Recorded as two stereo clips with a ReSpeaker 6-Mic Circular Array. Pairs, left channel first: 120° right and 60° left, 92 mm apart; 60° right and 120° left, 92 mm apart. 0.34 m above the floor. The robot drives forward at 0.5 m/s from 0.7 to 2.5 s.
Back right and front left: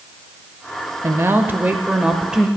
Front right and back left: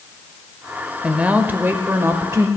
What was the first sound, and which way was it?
A woman speaking, 55° left.